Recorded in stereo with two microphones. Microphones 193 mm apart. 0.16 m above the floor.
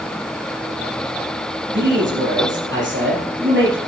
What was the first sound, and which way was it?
A man speaking, 65° right (ahead or behind).